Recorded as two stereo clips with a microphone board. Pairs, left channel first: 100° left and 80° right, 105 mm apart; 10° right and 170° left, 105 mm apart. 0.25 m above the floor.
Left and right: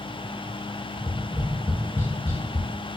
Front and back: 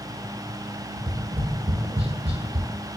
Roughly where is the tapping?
Behind.